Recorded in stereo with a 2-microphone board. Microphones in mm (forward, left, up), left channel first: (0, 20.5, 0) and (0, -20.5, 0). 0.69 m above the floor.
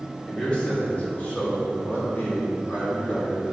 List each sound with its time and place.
0.3 s a man speaking: 20° left (ahead or behind), 1.9 m; by 3.5 s 65° left (ahead or behind), 3.5 m